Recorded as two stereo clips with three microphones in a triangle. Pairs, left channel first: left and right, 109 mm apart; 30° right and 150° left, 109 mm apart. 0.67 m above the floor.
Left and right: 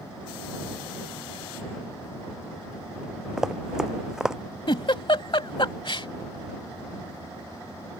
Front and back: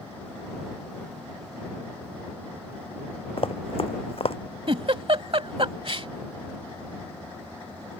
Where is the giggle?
125° left.